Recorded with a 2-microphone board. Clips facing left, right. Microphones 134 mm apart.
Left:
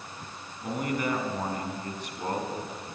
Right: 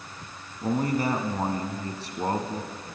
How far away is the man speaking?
About 1.9 m.